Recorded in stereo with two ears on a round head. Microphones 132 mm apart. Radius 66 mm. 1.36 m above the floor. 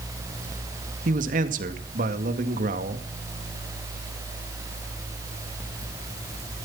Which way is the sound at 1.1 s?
55° right (ahead or behind).